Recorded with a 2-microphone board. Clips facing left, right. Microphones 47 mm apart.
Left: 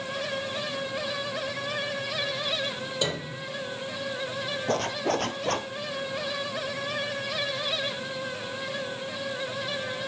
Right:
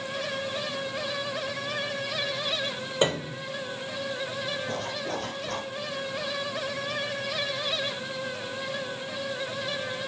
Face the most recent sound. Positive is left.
turn(degrees=60)  # may be behind; listen again after turning